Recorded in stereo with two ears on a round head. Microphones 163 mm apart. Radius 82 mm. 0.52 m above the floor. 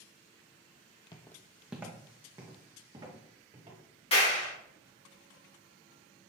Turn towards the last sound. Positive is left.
turn(degrees=30)  # may be behind; listen again after turning